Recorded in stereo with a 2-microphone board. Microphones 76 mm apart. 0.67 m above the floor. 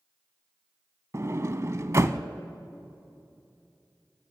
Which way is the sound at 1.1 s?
40° right (ahead or behind).